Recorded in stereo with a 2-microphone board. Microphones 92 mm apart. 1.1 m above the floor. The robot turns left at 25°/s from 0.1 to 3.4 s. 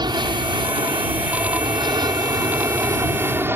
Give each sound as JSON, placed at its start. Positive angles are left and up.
{"t": 0.0, "sound": "an aircraft", "azimuth_deg": -65}